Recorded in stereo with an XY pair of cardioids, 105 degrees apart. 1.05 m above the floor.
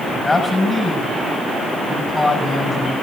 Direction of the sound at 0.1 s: 25° left.